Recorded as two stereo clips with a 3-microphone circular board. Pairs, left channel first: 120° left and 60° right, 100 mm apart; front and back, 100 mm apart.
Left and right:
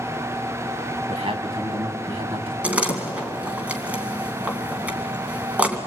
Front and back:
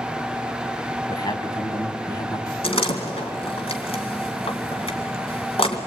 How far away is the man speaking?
About 3 m.